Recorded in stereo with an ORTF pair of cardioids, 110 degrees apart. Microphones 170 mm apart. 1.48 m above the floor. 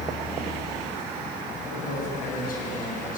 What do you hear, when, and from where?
1.6 s a man speaking: 60° left, 8.5 m; by 3.2 s 55° left, 8.5 m